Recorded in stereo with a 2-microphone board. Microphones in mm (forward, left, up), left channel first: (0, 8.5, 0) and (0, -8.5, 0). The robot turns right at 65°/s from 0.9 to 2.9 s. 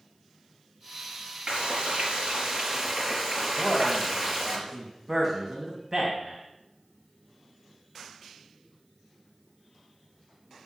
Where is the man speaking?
10° right (ahead or behind), 2.5 m.